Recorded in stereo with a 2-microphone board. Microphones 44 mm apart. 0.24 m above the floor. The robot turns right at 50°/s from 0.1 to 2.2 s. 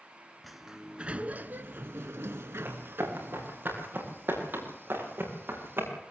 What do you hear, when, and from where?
0.4 s a sliding door: straight behind, 0.7 m; by 3.6 s 90° right, 0.7 m
2.6 s running footsteps: 45° right (ahead or behind), 9 m; by 5.9 s 55° right (ahead or behind), 7.5 m